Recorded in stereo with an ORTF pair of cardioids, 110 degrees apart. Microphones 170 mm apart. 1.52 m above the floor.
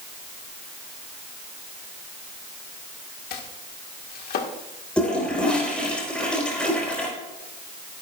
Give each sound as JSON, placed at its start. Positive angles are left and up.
{"t": 3.3, "sound": "chopping", "azimuth_deg": 70, "distance_m": 1.9}
{"t": 5.0, "sound": "a toilet flushing", "azimuth_deg": 5, "distance_m": 4.5}